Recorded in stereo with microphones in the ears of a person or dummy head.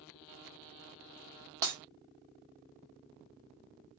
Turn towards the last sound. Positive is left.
turn(degrees=-15)  # may be behind; listen again after turning